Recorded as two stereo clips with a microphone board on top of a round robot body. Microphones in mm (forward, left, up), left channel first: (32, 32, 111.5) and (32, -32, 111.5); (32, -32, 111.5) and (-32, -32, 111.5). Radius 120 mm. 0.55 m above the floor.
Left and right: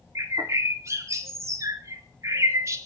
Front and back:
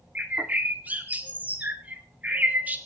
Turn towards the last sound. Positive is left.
turn(degrees=-120)